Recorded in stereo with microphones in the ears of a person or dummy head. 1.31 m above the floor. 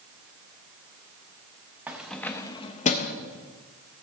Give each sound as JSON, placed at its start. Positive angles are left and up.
{"t": 1.9, "sound": "keys jangling", "side_deg": -10, "distance_m": 0.8}